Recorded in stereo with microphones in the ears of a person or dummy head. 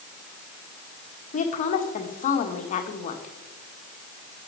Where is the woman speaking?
35° left (ahead or behind), 1.5 m.